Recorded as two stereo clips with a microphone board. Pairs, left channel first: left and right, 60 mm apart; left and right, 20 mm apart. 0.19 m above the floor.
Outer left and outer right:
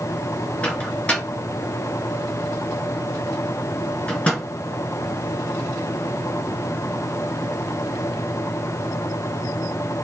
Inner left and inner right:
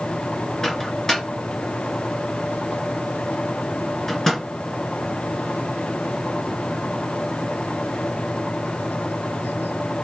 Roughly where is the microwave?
Left.